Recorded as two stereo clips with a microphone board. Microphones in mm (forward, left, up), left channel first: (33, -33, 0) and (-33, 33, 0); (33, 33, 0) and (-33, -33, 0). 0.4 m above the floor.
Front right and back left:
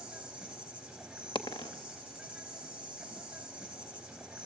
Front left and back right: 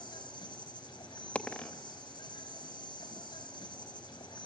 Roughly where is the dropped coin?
Ahead right.